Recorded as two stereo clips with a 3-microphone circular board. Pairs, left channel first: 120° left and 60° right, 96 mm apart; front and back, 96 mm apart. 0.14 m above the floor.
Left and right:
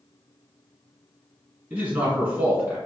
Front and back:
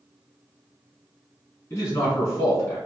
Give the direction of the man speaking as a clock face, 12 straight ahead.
1 o'clock.